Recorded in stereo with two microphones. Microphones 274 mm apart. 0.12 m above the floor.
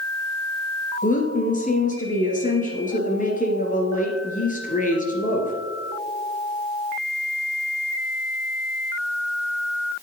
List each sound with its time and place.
1.0 s a woman speaking: 30° left (ahead or behind), 2.0 m